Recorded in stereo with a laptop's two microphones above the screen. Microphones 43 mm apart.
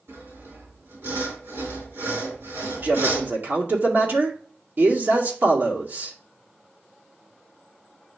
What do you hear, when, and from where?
0.1 s sawing: 70° right (ahead or behind), 5 m
2.8 s a man speaking: 50° right (ahead or behind), 2 m